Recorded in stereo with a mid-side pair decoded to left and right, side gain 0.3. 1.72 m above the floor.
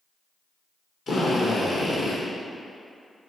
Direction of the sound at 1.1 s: 60° left.